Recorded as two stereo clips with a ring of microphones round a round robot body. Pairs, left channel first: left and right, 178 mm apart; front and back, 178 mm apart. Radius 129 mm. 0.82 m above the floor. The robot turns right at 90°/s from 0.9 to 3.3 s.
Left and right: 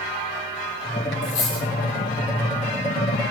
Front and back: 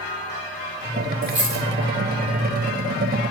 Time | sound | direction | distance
1.2 | a dropped coin | 120° left | 4.5 m